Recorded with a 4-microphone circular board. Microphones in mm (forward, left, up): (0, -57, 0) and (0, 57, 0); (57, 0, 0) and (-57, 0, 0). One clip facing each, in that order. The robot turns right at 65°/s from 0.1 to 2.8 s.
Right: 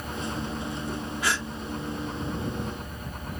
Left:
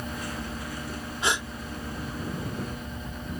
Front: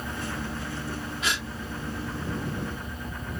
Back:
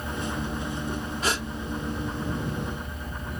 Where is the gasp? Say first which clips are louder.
Left 2 dB, back 4 dB; 145° left; by 1.5 s 165° left.